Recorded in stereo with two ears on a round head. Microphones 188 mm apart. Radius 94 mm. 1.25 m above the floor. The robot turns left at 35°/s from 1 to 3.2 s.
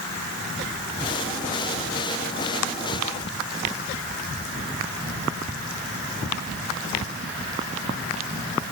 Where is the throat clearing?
I don't hear throat clearing.